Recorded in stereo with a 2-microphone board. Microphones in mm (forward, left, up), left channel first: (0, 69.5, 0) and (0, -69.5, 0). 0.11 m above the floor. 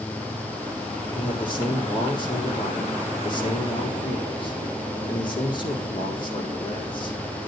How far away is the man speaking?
About 4 m.